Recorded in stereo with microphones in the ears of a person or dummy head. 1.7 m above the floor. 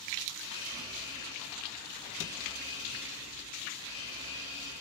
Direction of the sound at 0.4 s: 25° left (ahead or behind).